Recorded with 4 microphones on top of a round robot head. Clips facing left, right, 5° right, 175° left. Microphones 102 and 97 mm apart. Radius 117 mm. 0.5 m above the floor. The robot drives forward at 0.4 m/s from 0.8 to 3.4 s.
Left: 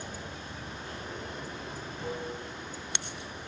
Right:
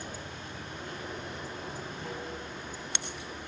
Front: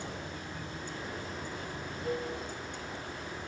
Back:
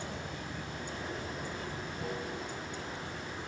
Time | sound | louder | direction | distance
0.0 | running water | even, even | 150° left | 2.5 m